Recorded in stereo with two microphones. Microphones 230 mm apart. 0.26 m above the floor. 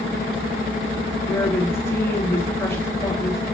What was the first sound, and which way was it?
A woman speaking, 10° left (ahead or behind).